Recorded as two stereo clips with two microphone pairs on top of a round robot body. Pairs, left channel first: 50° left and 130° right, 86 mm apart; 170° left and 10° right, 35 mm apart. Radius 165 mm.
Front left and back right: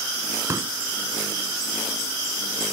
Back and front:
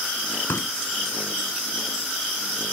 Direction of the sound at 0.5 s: 170° left.